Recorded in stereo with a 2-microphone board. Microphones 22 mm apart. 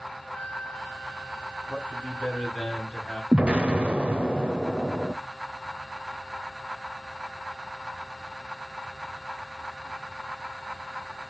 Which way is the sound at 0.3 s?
65° left (ahead or behind).